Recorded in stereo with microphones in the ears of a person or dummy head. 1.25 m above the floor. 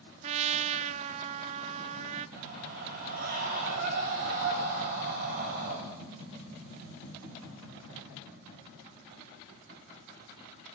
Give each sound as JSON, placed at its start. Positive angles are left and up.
{"t": 0.2, "sound": "a trumpet", "side_deg": -35, "distance_m": 0.7}
{"t": 2.4, "sound": "a scream", "side_deg": -55, "distance_m": 8.0}